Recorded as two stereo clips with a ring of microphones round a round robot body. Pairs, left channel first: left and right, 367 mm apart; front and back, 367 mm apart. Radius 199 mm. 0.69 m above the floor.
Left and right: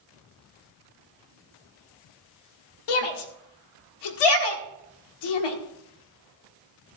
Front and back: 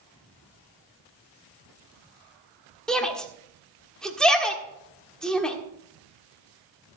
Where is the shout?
90° left, 1.6 m.